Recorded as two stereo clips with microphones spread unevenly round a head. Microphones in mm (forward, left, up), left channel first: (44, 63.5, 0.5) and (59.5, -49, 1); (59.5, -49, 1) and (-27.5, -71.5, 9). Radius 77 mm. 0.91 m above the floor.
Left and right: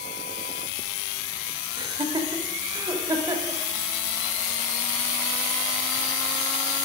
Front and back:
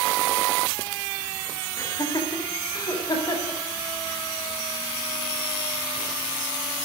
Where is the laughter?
35° right, 3.5 m; by 3.6 s 25° right, 4.5 m.